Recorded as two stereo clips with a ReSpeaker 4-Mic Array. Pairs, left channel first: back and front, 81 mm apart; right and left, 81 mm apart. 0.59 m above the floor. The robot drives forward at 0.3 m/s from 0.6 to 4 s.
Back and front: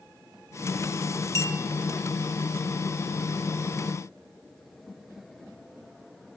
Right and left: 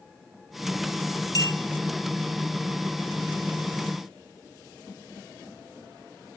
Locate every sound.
1.4 s a clink: 130° right, 1.8 m